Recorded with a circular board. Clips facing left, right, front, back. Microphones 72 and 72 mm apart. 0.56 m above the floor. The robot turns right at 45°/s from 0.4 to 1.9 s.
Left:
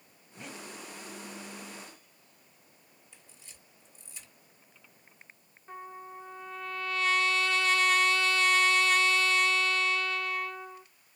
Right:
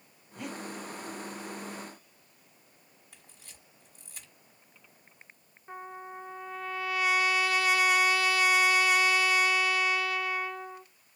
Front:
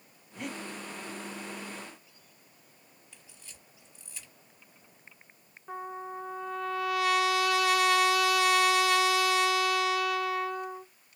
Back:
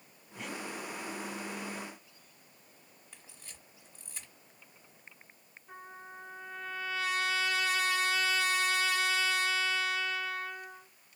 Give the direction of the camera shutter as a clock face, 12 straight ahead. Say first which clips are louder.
Right 1 dB, back 1 dB; 4 o'clock.